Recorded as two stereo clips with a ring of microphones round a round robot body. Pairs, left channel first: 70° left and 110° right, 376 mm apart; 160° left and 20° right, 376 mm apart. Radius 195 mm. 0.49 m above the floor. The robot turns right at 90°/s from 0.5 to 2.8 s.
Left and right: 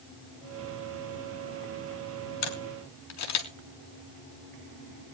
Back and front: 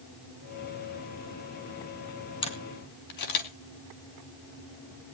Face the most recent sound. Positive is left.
turn(degrees=115)